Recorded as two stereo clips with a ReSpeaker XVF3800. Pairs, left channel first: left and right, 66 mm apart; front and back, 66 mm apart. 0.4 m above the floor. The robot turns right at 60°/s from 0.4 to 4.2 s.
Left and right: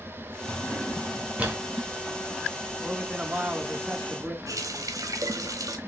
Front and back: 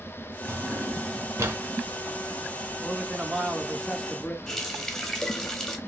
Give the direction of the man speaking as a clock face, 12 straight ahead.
4 o'clock.